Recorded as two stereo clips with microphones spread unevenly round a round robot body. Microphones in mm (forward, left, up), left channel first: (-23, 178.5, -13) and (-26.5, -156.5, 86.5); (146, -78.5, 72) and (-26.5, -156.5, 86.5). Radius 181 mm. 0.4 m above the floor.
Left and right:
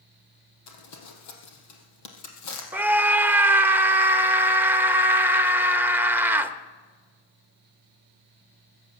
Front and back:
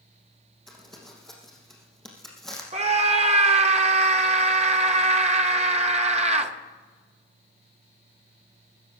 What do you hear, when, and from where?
0.7 s crumpling: 130° left, 3 m
2.7 s a scream: 165° left, 1.2 m